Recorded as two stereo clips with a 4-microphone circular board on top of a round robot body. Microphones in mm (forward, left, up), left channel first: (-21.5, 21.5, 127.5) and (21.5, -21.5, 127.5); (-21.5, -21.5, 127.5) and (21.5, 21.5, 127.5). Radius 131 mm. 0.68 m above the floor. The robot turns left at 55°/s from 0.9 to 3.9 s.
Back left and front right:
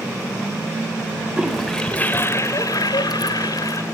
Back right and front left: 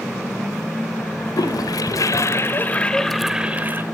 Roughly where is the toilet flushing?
Behind right.